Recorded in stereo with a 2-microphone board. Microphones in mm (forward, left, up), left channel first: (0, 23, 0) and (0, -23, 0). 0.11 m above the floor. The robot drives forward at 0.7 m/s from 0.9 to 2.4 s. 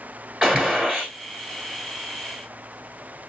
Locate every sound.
0.4 s a gunshot: 15° right (ahead or behind), 1.6 m